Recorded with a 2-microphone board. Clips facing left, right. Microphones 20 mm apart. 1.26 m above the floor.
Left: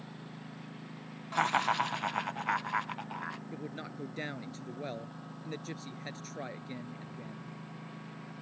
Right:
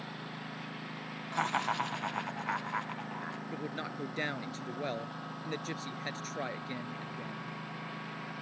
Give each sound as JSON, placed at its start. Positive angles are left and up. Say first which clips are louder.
{"t": 0.0, "sound": "a lawn mower", "louder": "right 5 dB", "side_deg": -35}
{"t": 1.3, "sound": "laughter", "louder": "left 3 dB", "side_deg": 20}
{"t": 3.5, "sound": "a man speaking", "louder": "right 3 dB", "side_deg": -20}